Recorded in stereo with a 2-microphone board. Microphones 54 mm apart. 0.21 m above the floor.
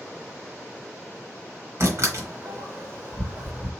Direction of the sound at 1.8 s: 50° right (ahead or behind).